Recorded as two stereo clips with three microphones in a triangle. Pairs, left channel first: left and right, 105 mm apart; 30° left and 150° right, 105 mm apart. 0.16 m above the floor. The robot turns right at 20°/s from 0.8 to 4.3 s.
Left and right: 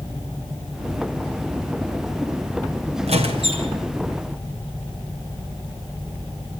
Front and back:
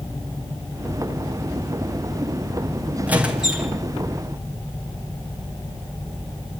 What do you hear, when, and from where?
3.1 s a squeak: 75° right, 5 m; by 3.7 s 60° right, 5 m